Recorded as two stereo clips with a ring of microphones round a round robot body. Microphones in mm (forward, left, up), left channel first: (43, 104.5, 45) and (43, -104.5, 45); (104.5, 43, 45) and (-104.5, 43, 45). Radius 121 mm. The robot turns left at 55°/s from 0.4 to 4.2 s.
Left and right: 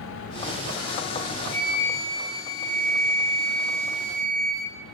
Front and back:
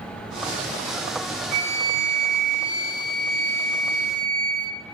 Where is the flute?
170° right, 1.0 m; by 4.7 s 40° left, 1.0 m.